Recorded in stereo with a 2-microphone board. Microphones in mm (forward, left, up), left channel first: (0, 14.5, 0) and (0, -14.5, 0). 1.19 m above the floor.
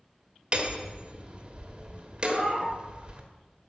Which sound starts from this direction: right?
Hammering, at 0.5 s.